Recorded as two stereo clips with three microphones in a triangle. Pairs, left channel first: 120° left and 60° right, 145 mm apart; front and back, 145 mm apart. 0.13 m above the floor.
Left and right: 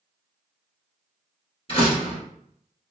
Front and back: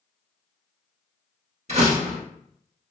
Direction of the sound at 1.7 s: 160° left.